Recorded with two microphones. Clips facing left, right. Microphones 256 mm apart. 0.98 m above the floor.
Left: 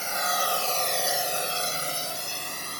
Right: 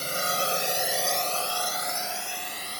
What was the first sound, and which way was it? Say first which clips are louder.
A drone: right 1 dB; 40° right (ahead or behind).